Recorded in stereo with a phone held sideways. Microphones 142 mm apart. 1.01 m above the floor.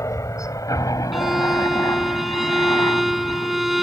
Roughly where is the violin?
Centre.